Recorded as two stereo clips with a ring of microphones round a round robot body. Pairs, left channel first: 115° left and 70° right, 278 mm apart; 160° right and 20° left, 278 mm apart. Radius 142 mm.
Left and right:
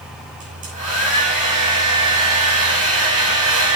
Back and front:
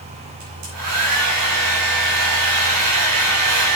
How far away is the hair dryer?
About 5.5 m.